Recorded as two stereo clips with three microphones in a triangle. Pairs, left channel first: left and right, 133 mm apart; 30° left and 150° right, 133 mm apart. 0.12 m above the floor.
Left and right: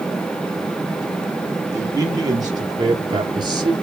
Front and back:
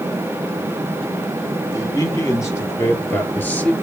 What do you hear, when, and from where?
1.7 s a man speaking: 30° right, 3.5 m; by 3.7 s 45° right, 2.5 m